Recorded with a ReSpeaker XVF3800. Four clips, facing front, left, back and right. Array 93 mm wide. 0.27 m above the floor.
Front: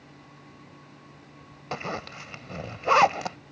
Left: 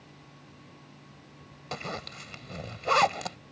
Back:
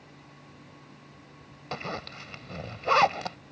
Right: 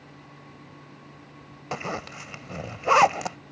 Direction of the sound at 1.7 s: 65° right.